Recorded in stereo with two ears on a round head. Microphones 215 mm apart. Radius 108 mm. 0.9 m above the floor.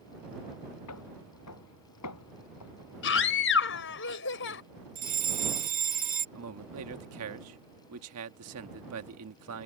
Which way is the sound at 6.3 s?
65° right (ahead or behind).